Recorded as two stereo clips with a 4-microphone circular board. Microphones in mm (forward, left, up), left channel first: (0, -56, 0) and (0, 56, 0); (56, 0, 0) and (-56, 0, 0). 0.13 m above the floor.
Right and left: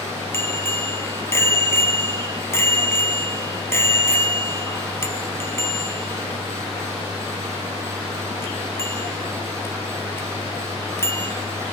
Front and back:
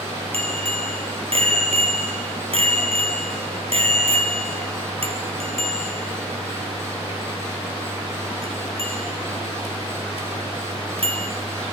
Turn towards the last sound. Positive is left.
turn(degrees=-155)